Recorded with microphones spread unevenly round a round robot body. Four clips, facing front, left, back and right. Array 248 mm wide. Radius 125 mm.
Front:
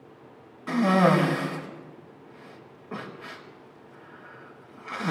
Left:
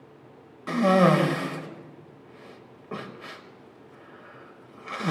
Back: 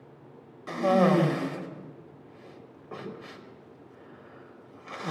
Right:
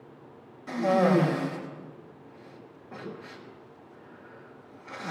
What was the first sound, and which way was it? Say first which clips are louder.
A cough: left 3 dB, front 2 dB; 80° left.